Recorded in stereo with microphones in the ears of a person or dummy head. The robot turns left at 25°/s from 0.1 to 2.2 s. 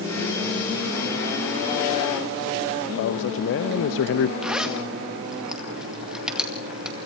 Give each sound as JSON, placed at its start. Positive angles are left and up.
{"t": 2.9, "sound": "a man speaking", "side_deg": 70, "distance_m": 1.0}
{"t": 4.4, "sound": "a zipper", "side_deg": -5, "distance_m": 1.9}